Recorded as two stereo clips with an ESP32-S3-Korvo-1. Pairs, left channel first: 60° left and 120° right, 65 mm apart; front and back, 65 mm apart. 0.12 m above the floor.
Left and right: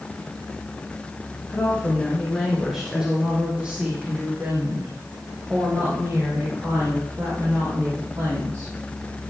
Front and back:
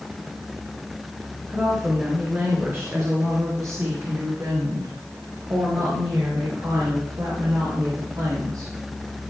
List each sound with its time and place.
1.5 s a woman speaking: 120° left, 2.0 m; by 8.7 s 160° right, 5.5 m